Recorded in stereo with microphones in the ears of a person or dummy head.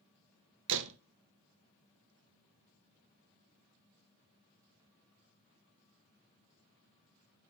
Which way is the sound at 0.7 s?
70° right (ahead or behind).